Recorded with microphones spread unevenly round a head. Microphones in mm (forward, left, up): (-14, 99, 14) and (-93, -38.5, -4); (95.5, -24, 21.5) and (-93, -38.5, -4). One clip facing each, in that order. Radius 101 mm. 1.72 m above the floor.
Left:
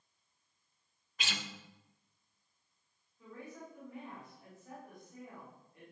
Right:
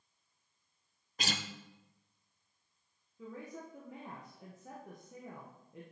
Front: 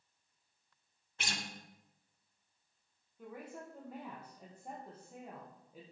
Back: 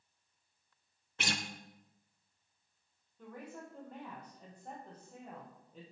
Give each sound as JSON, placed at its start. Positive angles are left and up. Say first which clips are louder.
{"t": 1.2, "sound": "a guitar", "louder": "right 4 dB, back 5 dB", "azimuth_deg": -165, "distance_m": 0.8}
{"t": 3.2, "sound": "a woman speaking", "louder": "right 3 dB, even", "azimuth_deg": -80, "distance_m": 1.8}